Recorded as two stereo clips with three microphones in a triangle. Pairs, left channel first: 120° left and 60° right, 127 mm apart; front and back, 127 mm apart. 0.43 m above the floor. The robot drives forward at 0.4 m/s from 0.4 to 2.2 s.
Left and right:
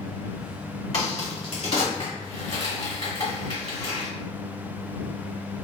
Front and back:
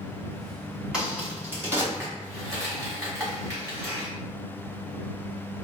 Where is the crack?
100° left, 1.3 m; by 4.1 s 125° left, 1.5 m.